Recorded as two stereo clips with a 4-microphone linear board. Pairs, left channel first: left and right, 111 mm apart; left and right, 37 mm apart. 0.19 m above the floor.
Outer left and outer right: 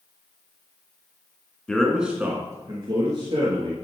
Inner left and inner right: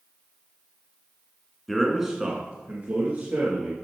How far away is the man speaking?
About 1.7 m.